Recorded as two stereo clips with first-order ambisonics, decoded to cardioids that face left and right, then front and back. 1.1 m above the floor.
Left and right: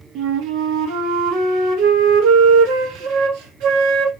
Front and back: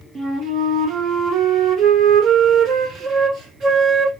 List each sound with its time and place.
0.1 s a flute: 120° right, 0.7 m